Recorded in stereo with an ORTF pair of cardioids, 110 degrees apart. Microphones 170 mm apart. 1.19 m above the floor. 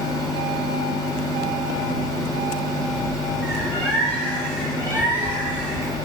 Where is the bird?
10° left, 1.2 m.